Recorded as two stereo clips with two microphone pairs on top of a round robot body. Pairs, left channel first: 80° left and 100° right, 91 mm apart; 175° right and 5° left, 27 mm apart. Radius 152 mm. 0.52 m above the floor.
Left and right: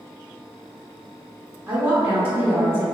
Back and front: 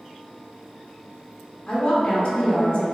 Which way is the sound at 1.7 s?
150° right.